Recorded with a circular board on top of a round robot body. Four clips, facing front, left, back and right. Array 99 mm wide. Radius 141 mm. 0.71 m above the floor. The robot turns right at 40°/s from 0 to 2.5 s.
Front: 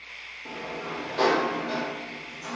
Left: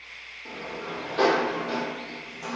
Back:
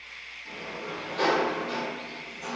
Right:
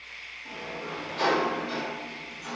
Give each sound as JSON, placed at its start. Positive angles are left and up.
{"t": 0.5, "sound": "a sliding door", "azimuth_deg": 25, "distance_m": 0.8}